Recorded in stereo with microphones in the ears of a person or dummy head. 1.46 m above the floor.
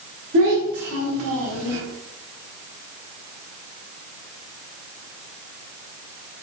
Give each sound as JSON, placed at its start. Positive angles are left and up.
{"t": 0.3, "sound": "a child speaking", "side_deg": -75, "distance_m": 1.4}